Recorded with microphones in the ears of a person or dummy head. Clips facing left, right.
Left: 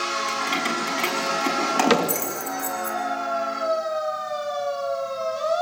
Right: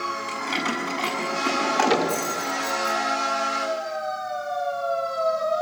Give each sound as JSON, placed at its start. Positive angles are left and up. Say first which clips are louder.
{"t": 0.3, "sound": "keys jangling", "louder": "right 1 dB", "side_deg": 30, "distance_m": 8.5}
{"t": 1.9, "sound": "a cupboard door", "louder": "left 2 dB", "side_deg": 70, "distance_m": 2.0}